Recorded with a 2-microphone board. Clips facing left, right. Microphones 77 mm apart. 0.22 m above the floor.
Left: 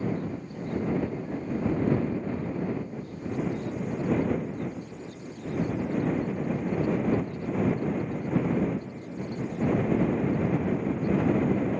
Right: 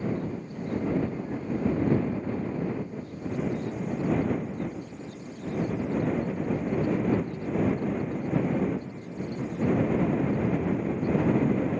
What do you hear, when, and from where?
Only background noise.